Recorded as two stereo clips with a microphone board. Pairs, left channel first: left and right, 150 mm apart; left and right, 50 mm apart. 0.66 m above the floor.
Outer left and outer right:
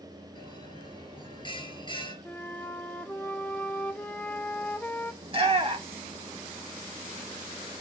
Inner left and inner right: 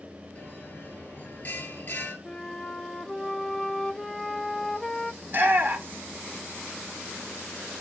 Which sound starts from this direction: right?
A shout, at 5.2 s.